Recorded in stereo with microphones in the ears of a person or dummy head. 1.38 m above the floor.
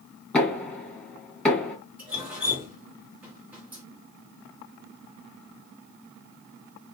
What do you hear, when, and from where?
0.3 s knocking: 5° left (ahead or behind), 1.7 m
2.0 s dripping: 10° right (ahead or behind), 1.3 m